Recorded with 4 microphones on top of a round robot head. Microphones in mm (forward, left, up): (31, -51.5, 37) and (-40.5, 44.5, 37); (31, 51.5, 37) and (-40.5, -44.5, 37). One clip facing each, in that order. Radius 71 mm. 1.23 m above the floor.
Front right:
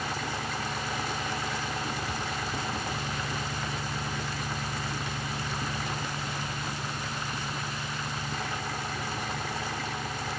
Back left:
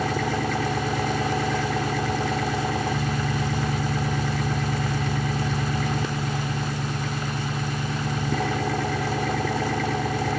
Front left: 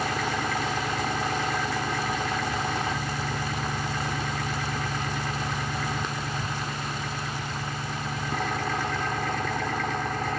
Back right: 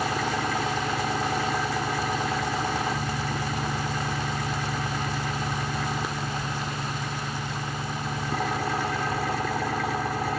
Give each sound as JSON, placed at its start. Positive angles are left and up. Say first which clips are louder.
{"t": 0.0, "sound": "an engine running", "louder": "back left 9 dB, back right 1 dB", "azimuth_deg": 150}